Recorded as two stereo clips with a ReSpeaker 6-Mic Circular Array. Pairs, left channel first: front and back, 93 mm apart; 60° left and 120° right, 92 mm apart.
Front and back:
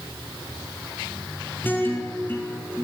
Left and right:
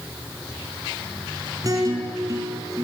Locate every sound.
1.6 s a guitar: 70° right, 5 m